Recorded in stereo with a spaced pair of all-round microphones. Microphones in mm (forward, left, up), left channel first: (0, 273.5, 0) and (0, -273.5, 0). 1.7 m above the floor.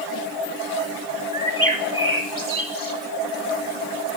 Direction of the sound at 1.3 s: 60° right (ahead or behind).